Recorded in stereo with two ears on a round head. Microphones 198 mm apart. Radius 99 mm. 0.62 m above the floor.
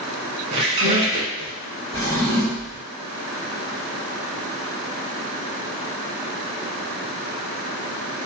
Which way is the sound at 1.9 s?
5° right (ahead or behind).